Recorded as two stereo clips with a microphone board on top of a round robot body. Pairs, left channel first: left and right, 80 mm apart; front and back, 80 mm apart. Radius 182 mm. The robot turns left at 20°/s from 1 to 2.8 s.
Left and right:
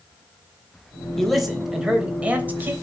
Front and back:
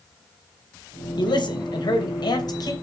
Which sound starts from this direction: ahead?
A man speaking, at 1.2 s.